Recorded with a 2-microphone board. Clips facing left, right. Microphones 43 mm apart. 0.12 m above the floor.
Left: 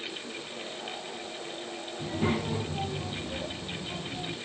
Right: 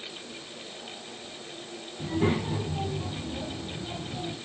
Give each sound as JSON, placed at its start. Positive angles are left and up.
{"t": 2.0, "sound": "a child speaking", "side_deg": -10, "distance_m": 8.5}